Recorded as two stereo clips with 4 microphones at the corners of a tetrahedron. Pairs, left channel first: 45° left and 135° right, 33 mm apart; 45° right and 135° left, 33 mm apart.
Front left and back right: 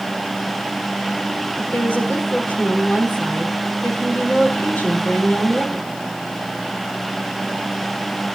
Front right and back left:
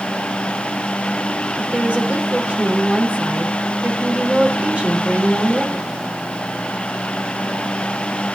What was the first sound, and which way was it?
A woman speaking, 85° left.